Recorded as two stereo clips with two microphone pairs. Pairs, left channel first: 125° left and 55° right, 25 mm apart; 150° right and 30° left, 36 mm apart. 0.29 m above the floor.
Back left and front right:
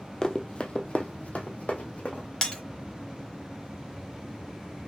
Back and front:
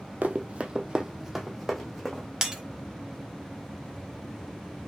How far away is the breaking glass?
About 1.0 m.